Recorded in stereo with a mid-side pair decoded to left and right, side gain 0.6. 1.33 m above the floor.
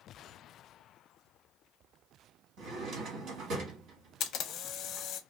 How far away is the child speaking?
I don't hear a child speaking.